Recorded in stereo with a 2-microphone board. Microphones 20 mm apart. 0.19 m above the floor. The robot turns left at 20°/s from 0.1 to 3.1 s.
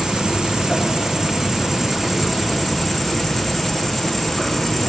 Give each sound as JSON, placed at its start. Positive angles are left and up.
{"t": 0.0, "sound": "an insect", "azimuth_deg": -130, "distance_m": 0.8}